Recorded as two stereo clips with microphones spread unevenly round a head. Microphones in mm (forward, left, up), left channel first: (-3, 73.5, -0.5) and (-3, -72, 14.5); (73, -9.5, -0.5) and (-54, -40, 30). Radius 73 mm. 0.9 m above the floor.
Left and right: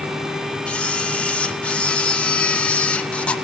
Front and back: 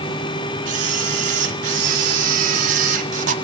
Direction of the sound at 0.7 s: 165° left.